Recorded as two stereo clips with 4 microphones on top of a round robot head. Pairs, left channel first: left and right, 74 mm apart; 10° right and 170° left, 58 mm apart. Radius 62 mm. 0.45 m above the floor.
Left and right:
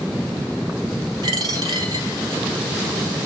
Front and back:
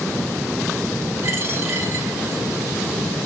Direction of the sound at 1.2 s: 125° right.